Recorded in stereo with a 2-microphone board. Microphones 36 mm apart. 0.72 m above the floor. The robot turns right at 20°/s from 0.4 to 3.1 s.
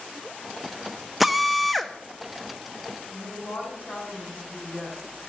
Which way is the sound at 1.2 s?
Centre (ahead or behind).